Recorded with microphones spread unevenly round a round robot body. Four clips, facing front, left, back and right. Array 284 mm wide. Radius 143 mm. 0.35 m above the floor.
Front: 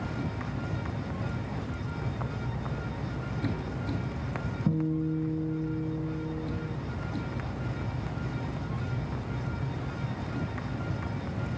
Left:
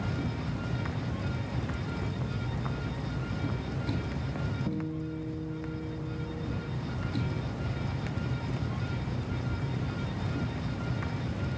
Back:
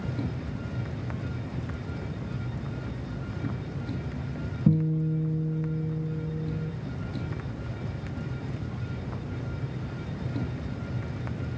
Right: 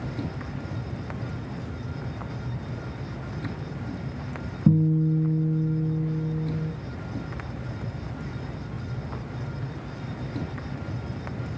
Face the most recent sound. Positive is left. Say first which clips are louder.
# right 17 dB, back 3 dB
turn(degrees=-105)